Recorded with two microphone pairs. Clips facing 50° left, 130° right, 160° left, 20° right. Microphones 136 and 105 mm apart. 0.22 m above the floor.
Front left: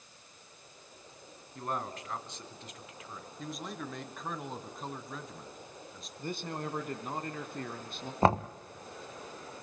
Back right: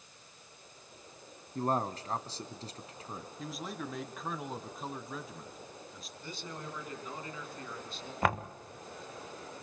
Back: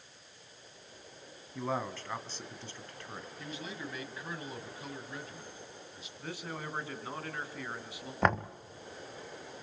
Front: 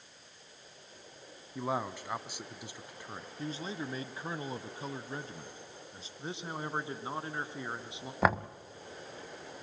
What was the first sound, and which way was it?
A man speaking, 90° right.